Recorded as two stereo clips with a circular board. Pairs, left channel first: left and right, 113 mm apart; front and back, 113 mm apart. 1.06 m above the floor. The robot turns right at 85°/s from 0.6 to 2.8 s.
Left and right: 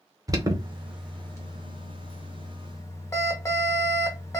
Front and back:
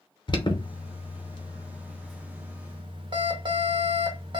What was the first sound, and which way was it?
An alarm, 35° right.